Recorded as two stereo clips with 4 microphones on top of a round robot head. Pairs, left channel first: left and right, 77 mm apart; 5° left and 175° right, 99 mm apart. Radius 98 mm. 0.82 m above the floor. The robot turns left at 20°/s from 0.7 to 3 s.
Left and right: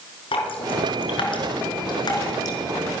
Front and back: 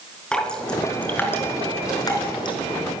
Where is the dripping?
85° left, 4.5 m; by 2.6 s 45° left, 4.5 m.